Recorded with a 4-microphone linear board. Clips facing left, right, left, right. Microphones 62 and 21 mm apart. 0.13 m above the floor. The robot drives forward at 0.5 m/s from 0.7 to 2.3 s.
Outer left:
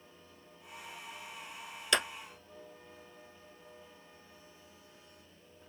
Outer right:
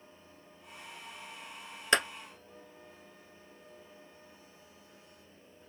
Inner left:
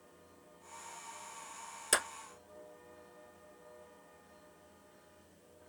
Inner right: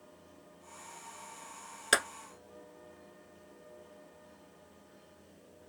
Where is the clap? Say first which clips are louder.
Outer right 4 dB, inner right 5 dB; 35° right (ahead or behind), 1.1 m.